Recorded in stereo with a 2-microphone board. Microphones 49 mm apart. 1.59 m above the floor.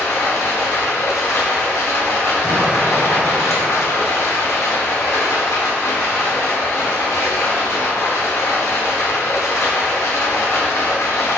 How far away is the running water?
About 0.9 m.